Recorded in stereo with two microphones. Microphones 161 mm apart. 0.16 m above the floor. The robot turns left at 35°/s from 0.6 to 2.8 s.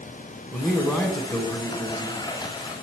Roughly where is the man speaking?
Centre.